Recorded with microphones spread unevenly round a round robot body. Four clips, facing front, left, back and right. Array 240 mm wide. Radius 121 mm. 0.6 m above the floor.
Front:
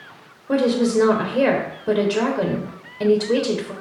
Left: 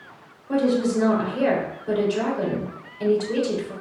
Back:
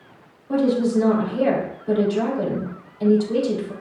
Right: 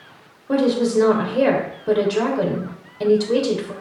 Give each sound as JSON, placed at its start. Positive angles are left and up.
{"t": 0.5, "sound": "a woman speaking", "azimuth_deg": -35, "distance_m": 3.0}